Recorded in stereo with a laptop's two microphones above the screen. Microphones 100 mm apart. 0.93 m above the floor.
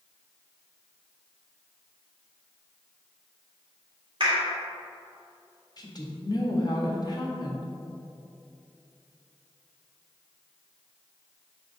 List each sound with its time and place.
4.2 s a clap: 55° right (ahead or behind), 1.8 m
5.8 s a woman speaking: 40° left (ahead or behind), 1.2 m